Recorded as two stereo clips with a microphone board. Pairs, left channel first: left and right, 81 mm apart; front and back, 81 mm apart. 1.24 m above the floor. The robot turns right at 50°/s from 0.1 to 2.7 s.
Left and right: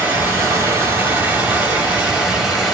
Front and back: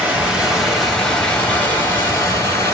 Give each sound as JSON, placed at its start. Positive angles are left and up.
{"t": 0.0, "sound": "running water", "azimuth_deg": -125, "distance_m": 1.1}